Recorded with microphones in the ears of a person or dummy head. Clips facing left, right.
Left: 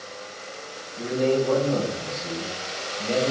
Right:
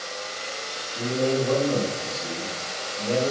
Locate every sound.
0.9 s a man speaking: 50° right (ahead or behind), 3 m